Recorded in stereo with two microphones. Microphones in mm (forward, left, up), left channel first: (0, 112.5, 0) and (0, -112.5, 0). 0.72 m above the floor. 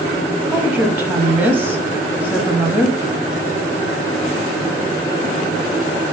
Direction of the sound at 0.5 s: 10° right (ahead or behind).